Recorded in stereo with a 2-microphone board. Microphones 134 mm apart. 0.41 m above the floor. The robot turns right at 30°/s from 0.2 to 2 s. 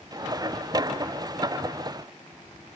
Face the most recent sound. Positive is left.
No sound to turn to.